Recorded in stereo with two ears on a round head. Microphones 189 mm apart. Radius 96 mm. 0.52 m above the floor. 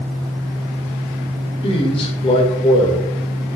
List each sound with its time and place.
1.6 s a man speaking: 25° left (ahead or behind), 1.5 m